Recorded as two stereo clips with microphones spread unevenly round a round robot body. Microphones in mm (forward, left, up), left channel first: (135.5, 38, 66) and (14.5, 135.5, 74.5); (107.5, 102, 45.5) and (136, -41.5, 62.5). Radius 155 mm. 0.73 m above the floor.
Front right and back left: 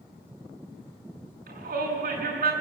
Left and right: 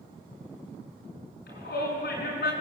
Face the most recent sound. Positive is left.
turn(degrees=125)